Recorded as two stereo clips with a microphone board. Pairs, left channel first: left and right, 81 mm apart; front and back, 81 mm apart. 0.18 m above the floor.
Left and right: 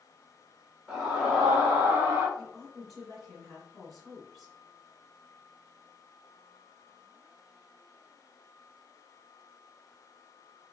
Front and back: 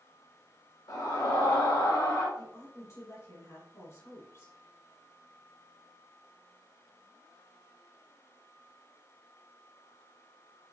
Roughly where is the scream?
Ahead.